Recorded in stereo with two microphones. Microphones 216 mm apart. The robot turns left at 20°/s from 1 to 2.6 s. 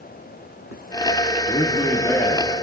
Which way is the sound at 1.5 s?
25° left (ahead or behind).